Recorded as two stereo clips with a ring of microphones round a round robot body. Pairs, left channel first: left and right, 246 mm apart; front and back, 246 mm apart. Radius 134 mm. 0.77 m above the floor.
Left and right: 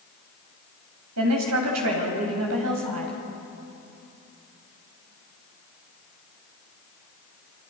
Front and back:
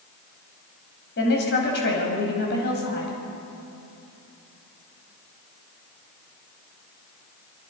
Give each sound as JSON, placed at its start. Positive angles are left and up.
{"t": 1.2, "sound": "a woman speaking", "azimuth_deg": -55, "distance_m": 5.0}